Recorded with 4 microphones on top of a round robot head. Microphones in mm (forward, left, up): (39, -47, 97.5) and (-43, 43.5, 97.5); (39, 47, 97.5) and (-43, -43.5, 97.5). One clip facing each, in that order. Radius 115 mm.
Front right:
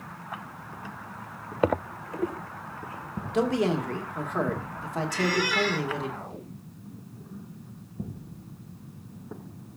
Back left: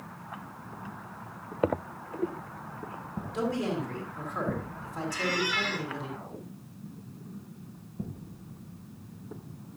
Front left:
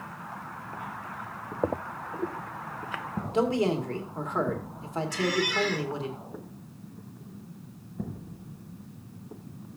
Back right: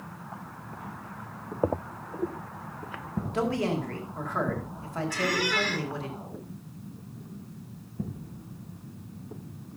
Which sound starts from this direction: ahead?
A man speaking, at 3.3 s.